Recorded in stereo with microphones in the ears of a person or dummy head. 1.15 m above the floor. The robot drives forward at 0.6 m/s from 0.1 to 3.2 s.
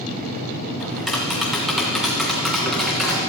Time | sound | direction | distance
0.8 | tapping | centre (ahead or behind) | 1.9 m